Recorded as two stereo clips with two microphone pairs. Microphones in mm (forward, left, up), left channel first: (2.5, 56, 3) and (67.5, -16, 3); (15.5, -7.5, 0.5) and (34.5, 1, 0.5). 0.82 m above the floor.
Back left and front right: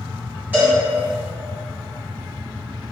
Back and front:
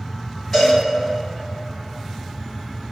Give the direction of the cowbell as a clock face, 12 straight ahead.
4 o'clock.